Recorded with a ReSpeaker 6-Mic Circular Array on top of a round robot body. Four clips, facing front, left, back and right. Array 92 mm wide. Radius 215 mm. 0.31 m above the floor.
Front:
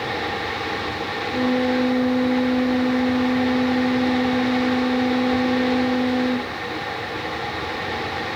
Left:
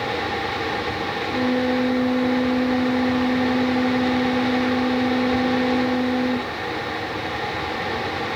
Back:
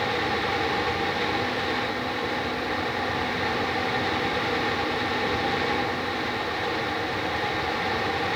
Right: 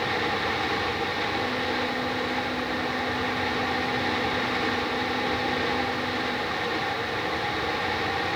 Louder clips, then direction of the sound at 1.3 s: Left 7 dB, front 7 dB; 40° left.